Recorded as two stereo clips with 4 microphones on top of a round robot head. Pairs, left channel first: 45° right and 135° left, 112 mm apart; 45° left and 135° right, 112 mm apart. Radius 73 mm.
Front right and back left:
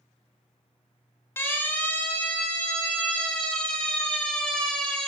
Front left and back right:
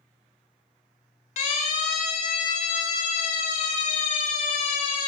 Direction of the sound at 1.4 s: 25° left.